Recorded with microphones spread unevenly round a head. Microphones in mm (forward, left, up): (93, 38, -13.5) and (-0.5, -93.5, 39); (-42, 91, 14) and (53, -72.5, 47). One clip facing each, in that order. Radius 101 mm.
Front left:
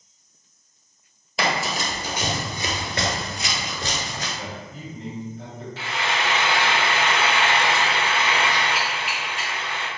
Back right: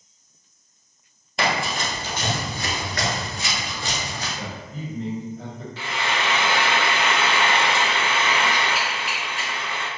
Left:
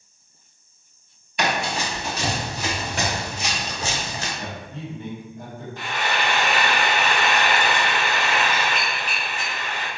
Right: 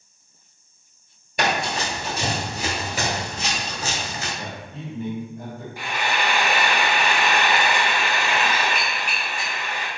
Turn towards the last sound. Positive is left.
turn(degrees=-140)